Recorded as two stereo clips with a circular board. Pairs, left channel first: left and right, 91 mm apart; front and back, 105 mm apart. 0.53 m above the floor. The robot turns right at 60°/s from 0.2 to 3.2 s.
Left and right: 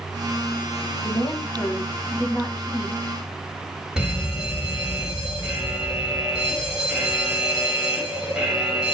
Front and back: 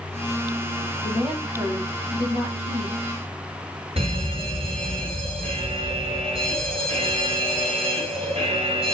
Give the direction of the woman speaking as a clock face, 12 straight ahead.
9 o'clock.